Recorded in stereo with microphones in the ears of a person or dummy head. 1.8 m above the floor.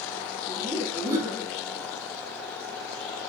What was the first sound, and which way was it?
Laughter, 40° right (ahead or behind).